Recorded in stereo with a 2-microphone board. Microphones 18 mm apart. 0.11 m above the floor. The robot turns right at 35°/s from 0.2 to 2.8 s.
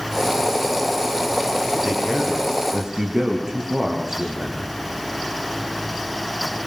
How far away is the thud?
I don't hear a thud.